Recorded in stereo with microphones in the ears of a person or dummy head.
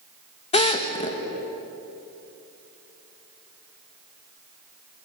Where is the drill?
30° left (ahead or behind), 2 m.